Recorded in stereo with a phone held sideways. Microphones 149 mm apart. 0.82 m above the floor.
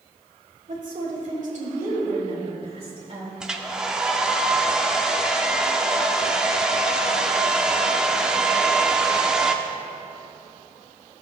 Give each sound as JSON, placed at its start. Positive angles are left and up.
{"t": 0.7, "sound": "a woman speaking", "side_deg": -65, "distance_m": 2.5}
{"t": 3.4, "sound": "a hair dryer", "side_deg": -5, "distance_m": 0.6}